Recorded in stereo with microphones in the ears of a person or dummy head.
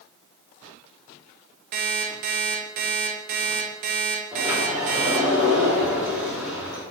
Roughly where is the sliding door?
Centre.